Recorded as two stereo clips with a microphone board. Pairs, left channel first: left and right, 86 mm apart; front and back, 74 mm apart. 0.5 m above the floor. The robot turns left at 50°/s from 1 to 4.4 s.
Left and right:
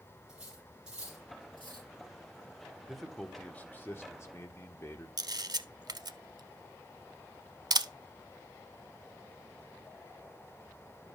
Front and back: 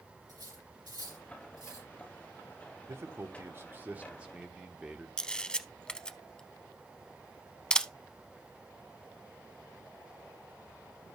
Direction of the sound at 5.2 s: 75° right.